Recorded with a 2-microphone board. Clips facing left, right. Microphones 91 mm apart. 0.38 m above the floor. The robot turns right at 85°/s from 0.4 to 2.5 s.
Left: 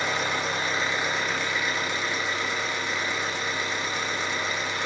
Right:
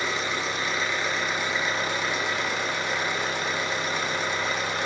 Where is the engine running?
110° left, 1.4 m; by 4.9 s 70° right, 1.4 m.